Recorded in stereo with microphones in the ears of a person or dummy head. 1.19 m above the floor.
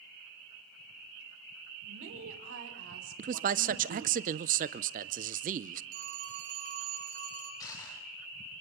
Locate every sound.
1.8 s a woman speaking: 75° right (ahead or behind), 3.5 m
3.2 s a man speaking: 40° right (ahead or behind), 0.6 m
5.9 s a phone ringing: 80° right, 5.5 m
7.6 s crushing: 20° left (ahead or behind), 3.5 m